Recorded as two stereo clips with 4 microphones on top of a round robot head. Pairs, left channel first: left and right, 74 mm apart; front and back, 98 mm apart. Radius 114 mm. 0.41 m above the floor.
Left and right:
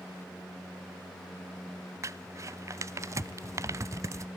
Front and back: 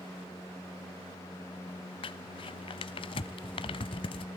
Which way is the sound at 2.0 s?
40° right.